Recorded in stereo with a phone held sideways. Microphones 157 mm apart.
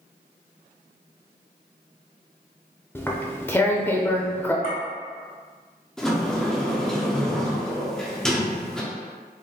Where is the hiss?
No hiss in this recording.